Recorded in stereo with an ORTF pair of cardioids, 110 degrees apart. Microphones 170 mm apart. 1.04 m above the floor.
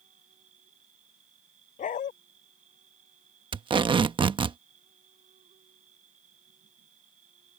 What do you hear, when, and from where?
0.0 s an insect: 45° right
1.8 s a dog barking: 50° left
3.5 s tape being pulled: 30° right